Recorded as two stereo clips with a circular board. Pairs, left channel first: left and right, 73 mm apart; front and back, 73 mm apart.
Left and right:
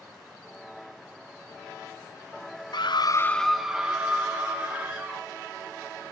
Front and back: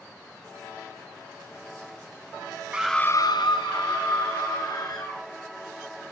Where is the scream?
105° left, 0.7 m; by 5.2 s 30° right, 3.5 m.